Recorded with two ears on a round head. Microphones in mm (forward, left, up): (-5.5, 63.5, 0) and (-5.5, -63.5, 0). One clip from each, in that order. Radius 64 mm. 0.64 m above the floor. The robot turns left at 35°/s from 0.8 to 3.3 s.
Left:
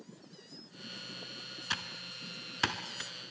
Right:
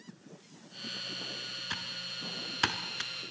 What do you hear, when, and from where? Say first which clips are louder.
1.7 s typing on a keyboard: left 3 dB; 25° left (ahead or behind), 1.3 m; by 3.1 s 25° right (ahead or behind), 1.3 m